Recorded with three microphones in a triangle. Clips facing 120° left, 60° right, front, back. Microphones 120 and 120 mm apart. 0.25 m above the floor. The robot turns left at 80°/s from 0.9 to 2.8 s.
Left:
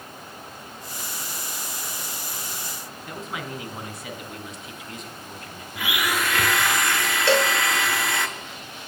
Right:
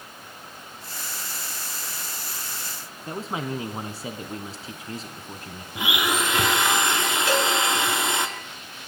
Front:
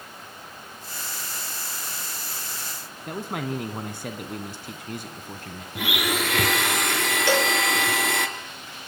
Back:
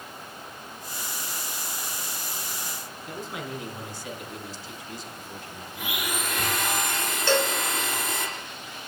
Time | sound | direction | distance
3.1 | a man speaking | 10° right | 2 m
5.8 | a blender | 10° left | 1.9 m
7.3 | a cowbell | 75° left | 1.6 m